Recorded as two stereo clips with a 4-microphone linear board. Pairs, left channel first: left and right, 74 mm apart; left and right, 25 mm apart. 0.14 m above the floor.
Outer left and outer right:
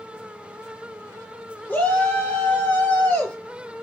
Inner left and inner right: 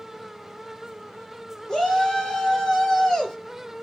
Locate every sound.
1.7 s a shout: 25° left (ahead or behind), 1.9 m